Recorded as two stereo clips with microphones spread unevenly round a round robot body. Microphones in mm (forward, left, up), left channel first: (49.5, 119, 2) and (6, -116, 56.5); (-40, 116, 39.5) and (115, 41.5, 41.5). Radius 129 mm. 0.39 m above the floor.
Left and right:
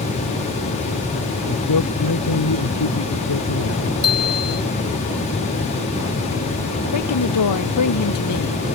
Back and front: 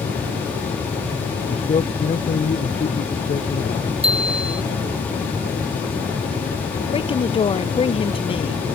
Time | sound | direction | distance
1.5 | a man speaking | 100° left | ?
4.0 | a bicycle bell | 30° left | ?
6.9 | a woman speaking | 95° left | ?